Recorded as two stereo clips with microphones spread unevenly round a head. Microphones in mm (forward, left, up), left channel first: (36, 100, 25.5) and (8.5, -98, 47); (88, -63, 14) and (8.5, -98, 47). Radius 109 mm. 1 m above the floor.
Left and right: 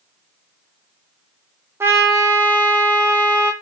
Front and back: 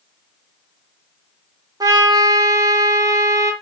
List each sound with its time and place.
1.8 s a trumpet: 175° right, 0.8 m